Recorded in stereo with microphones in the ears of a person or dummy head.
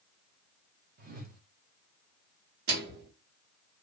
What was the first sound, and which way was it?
A whoosh, 55° right (ahead or behind).